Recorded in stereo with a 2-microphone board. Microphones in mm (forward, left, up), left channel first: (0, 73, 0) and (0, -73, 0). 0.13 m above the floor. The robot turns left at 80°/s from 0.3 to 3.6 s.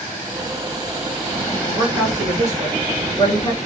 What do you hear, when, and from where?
1.7 s a woman speaking: 25° right (ahead or behind), 2 m; by 3.6 s 40° left (ahead or behind), 2 m